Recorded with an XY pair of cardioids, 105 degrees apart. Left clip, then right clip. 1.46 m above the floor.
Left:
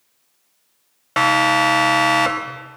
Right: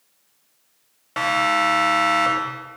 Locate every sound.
1.2 s a siren: 55° left, 4 m